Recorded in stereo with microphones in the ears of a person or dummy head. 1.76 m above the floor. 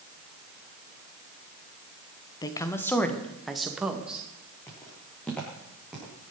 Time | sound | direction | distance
2.4 | a woman speaking | 20° left (ahead or behind) | 1.3 m
4.7 | footsteps | 10° left (ahead or behind) | 6 m